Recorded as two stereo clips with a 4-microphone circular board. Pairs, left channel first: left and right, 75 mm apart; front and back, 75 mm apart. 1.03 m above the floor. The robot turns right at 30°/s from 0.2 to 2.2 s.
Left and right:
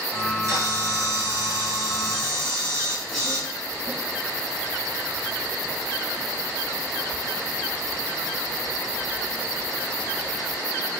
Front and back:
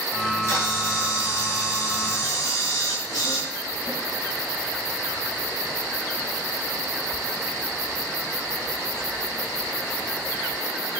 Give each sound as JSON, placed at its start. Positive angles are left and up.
{"t": 0.2, "sound": "a camera shutter", "azimuth_deg": -55, "distance_m": 1.2}